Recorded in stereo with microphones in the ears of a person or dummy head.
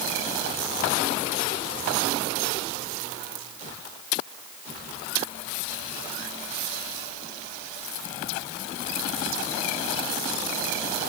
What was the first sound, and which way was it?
Only background noise.